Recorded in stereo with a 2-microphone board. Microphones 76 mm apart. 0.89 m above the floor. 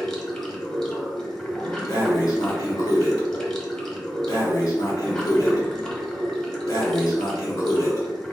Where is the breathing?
50° left (ahead or behind), 1.5 m.